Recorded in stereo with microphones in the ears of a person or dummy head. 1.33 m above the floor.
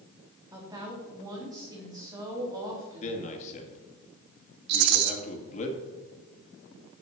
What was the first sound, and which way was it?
A woman speaking, 20° right (ahead or behind).